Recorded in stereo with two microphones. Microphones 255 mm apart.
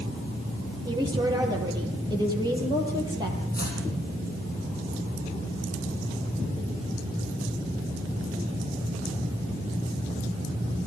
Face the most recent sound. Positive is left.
turn(degrees=40)  # may be behind; listen again after turning